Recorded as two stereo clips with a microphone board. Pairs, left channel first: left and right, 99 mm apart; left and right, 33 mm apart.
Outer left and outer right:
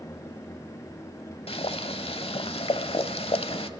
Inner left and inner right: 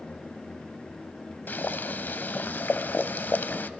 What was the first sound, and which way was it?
Boiling, 75° left (ahead or behind).